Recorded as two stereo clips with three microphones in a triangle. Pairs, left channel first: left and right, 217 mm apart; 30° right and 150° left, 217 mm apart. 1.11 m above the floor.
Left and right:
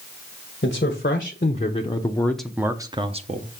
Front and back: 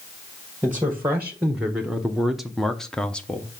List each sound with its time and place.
0.6 s a man speaking: 70° left, 1.1 m; by 3.6 s 110° right, 0.8 m